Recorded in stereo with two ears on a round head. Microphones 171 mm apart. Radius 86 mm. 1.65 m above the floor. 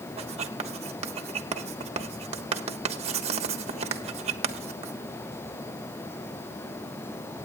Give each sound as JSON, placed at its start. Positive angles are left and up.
{"t": 0.2, "sound": "writing", "side_deg": -35, "distance_m": 1.3}